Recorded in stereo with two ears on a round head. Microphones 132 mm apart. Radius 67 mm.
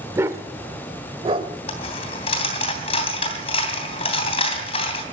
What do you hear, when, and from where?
0.1 s a dog barking: 20° right (ahead or behind), 1.2 m; by 1.5 s 40° right (ahead or behind), 1.9 m
1.7 s a dropped coin: 40° left (ahead or behind), 3 m